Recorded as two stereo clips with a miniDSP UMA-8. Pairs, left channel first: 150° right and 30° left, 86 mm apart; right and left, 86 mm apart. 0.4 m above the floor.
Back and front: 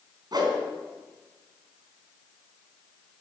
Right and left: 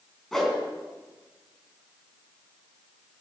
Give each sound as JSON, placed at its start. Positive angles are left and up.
{"t": 0.3, "sound": "a whoosh", "azimuth_deg": -5, "distance_m": 3.5}